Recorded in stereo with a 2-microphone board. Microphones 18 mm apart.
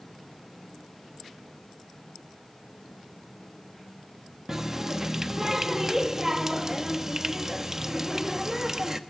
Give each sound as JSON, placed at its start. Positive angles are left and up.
{"t": 4.5, "sound": "a running tap", "side_deg": -15, "distance_m": 1.4}